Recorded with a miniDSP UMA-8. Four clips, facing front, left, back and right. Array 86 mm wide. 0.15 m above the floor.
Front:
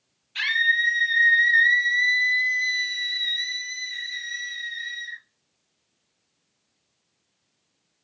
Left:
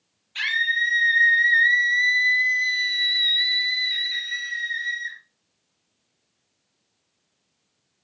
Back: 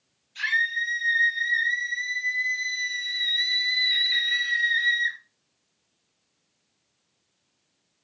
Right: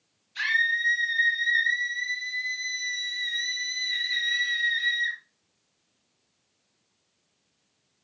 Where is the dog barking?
No dog barking in this recording.